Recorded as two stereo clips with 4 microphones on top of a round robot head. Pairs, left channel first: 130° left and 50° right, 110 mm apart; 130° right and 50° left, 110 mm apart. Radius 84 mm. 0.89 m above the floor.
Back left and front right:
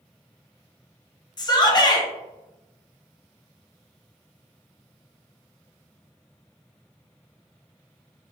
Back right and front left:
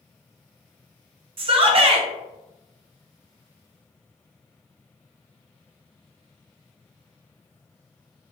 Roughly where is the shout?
Left.